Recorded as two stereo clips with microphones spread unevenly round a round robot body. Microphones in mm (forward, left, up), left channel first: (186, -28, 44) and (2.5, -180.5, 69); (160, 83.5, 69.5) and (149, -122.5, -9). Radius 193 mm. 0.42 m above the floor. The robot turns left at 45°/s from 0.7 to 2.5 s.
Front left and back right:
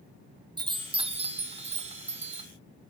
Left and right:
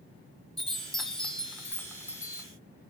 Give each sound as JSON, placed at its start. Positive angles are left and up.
{"t": 0.6, "sound": "a chime", "azimuth_deg": -90, "distance_m": 0.8}